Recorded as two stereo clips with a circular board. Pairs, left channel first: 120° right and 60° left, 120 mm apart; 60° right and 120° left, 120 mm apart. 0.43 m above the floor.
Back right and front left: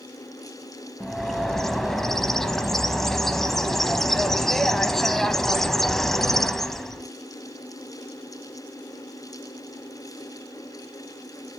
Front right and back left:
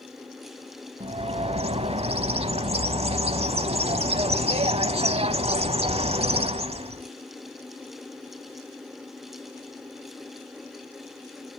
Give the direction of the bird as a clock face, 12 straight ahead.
7 o'clock.